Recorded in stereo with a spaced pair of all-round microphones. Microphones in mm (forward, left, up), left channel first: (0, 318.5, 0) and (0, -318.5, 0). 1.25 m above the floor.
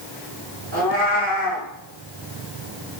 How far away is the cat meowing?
About 1.4 m.